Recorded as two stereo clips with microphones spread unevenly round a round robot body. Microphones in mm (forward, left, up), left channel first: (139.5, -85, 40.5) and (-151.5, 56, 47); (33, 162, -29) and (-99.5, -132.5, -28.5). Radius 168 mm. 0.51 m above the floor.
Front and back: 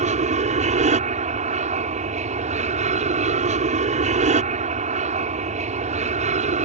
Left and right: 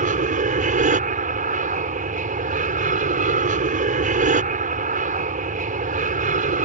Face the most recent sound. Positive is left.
turn(degrees=-155)